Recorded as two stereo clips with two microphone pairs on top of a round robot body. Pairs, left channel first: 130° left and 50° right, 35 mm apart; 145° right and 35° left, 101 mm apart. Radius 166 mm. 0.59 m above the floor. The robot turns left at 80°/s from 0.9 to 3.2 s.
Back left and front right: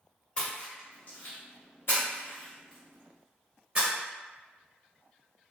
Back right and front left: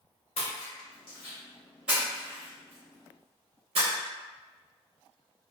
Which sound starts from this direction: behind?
A splash, at 0.4 s.